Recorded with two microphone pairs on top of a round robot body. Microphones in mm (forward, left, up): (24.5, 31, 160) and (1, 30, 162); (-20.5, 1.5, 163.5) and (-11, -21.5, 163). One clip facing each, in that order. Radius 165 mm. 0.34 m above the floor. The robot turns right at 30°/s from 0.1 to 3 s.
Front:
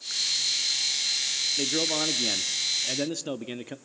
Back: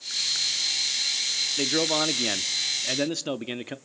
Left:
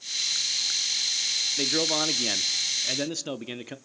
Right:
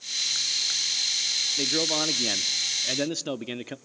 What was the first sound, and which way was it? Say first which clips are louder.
A man speaking: back 2 dB, even; 175° left.